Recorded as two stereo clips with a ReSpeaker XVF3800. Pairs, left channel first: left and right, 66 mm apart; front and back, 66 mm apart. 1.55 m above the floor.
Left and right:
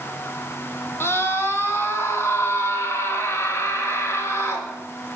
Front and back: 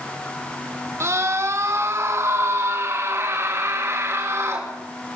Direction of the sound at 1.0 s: 140° left.